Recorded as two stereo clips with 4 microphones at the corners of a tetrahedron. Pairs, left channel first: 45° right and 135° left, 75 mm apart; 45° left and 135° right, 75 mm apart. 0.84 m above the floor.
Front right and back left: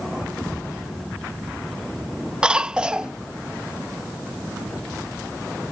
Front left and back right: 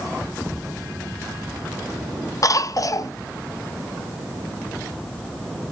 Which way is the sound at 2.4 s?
60° left.